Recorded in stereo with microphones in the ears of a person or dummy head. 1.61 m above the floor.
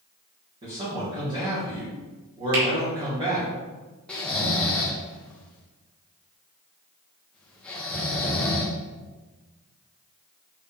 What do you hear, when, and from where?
0.6 s a man speaking: 35° right (ahead or behind), 3 m
2.5 s a finger snap: 70° right (ahead or behind), 3 m
4.1 s snoring: 5° left (ahead or behind), 1.1 m